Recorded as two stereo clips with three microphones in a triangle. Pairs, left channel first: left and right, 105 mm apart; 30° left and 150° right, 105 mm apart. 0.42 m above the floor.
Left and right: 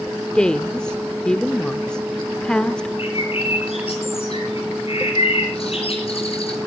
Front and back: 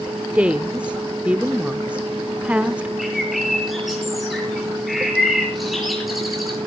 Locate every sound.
0.3 s a woman speaking: 160° left, 0.8 m
3.0 s a bird: 120° left, 6 m